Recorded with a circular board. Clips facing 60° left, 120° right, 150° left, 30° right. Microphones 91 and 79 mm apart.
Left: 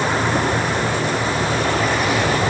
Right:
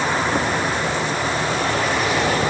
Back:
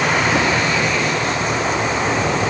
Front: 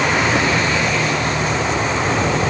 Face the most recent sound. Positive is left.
No sound to turn to.